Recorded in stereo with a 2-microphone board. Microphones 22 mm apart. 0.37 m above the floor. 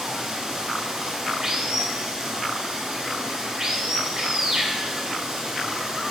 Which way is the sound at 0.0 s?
30° right (ahead or behind).